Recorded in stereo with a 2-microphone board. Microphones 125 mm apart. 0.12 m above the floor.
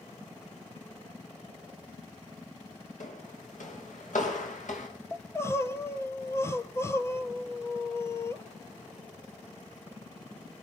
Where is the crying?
20° left (ahead or behind), 1.2 m.